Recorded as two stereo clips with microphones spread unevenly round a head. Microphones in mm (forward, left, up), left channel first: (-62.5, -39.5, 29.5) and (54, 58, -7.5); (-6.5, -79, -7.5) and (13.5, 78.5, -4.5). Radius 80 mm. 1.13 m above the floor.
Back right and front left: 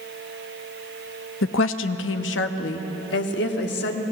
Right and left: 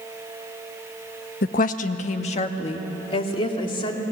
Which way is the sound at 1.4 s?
135° right.